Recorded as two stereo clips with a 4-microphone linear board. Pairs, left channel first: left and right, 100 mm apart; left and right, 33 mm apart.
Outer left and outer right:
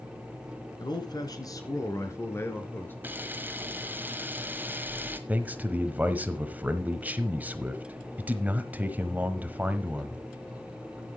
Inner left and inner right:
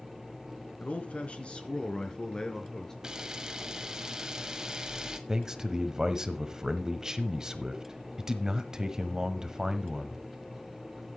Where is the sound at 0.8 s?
50° left (ahead or behind), 2.5 m; by 2.9 s 20° left (ahead or behind), 3 m.